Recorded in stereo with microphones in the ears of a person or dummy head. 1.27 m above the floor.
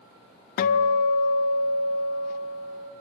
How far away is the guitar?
About 1.1 m.